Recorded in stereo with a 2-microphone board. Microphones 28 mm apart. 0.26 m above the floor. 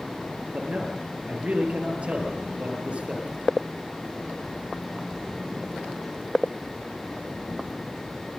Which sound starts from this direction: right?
A man speaking, at 0.5 s.